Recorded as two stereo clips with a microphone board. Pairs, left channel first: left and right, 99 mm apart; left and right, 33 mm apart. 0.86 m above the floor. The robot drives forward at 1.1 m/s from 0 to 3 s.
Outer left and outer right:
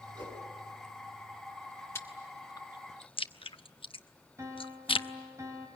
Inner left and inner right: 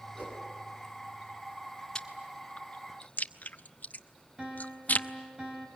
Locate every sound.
0.1 s a whoosh: 55° right (ahead or behind), 6.5 m
1.9 s chewing: 25° left (ahead or behind), 1.6 m; by 5.1 s 60° left (ahead or behind), 0.8 m
4.4 s a piano: 30° right (ahead or behind), 3 m